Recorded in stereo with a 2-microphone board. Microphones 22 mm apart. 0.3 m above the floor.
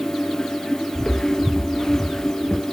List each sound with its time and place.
0.9 s footsteps: 25° left (ahead or behind), 1.1 m